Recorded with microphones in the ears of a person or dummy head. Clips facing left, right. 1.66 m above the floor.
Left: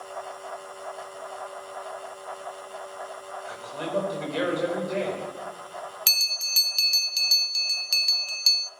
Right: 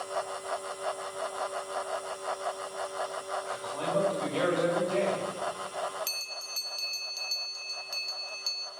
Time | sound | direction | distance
3.5 | a man speaking | 35° left (ahead or behind) | 5.5 m
6.1 | a bell | 70° left (ahead or behind) | 0.7 m